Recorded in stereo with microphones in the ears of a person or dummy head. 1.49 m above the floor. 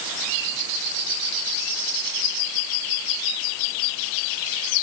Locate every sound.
Only background noise.